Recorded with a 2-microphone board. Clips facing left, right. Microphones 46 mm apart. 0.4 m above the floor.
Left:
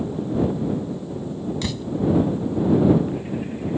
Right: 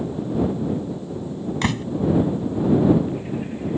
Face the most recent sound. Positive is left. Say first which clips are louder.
# right 5 dB
turn(degrees=-50)  # may be behind; listen again after turning